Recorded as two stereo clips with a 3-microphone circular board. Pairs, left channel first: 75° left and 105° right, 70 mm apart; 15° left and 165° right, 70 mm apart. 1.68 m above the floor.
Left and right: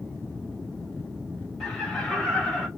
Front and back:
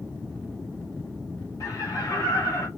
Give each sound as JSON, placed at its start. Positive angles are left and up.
{"t": 1.6, "sound": "laughter", "azimuth_deg": -15, "distance_m": 2.0}